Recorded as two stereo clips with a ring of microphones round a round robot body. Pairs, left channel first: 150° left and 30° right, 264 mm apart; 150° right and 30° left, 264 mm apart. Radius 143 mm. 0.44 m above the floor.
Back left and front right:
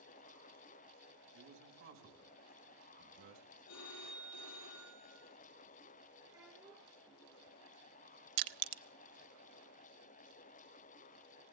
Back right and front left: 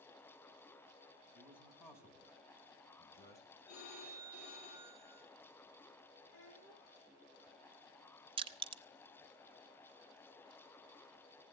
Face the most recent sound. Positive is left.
turn(degrees=-40)